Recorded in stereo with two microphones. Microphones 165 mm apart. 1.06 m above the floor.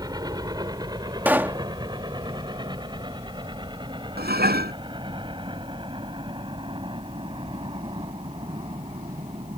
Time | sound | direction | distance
0.0 | a helicopter | 25° right (ahead or behind) | ?
1.2 | a pop | 10° right (ahead or behind) | ?
4.2 | dishes clattering | 80° right | ?